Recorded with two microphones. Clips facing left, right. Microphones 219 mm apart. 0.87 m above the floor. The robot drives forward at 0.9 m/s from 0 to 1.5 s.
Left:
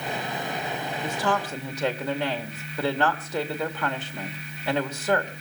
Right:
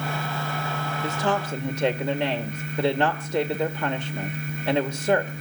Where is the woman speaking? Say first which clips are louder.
Right 1 dB; 10° right (ahead or behind), 1.8 m; by 5.3 s 15° right (ahead or behind), 1.4 m.